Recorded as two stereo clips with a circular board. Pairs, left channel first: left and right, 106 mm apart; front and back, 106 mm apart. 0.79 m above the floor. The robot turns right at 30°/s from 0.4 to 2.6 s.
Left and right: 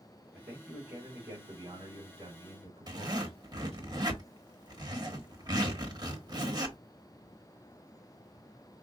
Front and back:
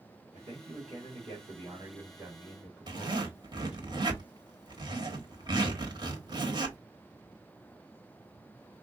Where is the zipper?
135° right, 1.3 m.